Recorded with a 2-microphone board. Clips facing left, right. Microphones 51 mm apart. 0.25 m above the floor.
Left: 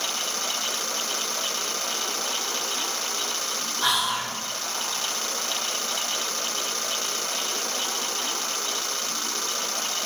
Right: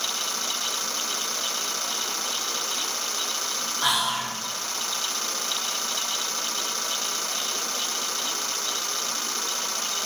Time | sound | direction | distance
3.8 | whispering | 15° right (ahead or behind) | 1.2 m